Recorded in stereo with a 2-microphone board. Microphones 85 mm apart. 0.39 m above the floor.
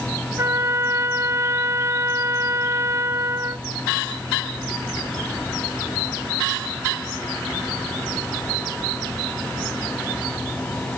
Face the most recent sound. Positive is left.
turn(degrees=-35)  # may be behind; listen again after turning